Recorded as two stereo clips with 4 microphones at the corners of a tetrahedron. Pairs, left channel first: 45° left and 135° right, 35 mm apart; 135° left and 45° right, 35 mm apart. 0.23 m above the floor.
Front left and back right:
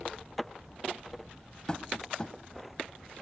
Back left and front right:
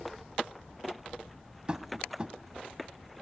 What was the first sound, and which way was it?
Tapping, 5° right.